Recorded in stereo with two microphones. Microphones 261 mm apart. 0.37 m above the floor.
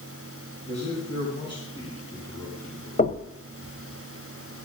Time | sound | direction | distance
0.7 | a man speaking | 25° left (ahead or behind) | 4.5 m
3.0 | knocking | 35° left (ahead or behind) | 0.9 m